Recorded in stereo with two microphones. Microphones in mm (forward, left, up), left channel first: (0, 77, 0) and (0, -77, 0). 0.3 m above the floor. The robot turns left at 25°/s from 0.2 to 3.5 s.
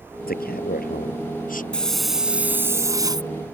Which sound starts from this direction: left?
A man speaking, at 0.3 s.